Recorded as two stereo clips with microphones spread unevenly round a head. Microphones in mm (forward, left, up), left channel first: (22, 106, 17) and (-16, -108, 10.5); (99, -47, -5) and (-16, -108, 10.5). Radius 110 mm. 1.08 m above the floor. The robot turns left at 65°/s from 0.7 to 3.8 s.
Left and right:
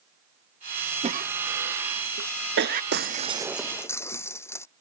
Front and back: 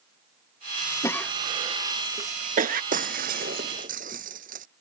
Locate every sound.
1.0 s a cough: 40° right; by 2.8 s 155° right
2.9 s breaking glass: 145° right; by 4.7 s 160° left